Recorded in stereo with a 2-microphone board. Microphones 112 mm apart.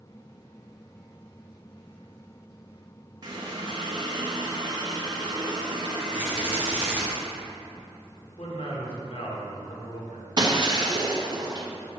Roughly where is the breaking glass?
Right.